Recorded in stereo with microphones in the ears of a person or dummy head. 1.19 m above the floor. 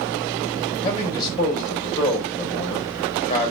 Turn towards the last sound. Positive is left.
turn(degrees=30)  # may be behind; listen again after turning